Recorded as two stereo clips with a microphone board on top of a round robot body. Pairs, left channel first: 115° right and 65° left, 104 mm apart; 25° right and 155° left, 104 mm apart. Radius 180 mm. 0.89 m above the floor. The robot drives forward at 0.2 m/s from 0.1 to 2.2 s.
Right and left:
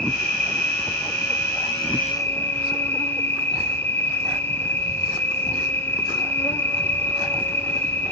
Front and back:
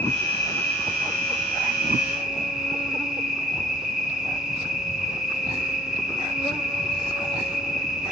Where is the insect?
55° right, 1.1 m; by 8.1 s 125° right, 1.1 m.